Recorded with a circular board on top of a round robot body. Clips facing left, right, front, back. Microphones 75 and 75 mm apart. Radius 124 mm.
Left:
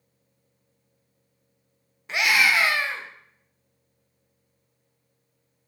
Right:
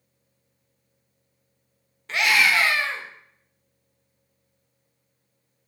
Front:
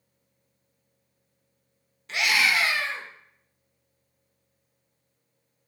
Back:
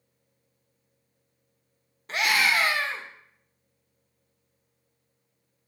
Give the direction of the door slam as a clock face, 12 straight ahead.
No door slam in this recording.